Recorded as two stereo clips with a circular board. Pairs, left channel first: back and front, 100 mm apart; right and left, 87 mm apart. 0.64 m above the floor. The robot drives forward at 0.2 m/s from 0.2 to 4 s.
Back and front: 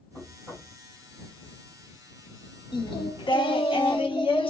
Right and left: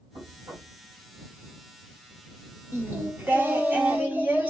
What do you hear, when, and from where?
0.1 s knocking: 105° left, 3 m
2.7 s singing: 150° left, 0.7 m; by 4.5 s 160° left, 0.9 m